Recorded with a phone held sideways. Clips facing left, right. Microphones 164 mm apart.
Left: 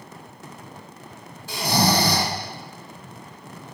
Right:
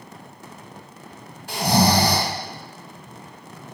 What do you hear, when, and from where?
1.5 s snoring: 60° right (ahead or behind), 1.1 m